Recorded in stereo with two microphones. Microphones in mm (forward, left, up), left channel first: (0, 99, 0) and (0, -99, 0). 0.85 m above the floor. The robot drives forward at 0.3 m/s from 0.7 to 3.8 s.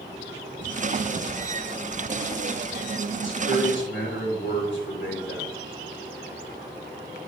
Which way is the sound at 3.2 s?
75° left (ahead or behind).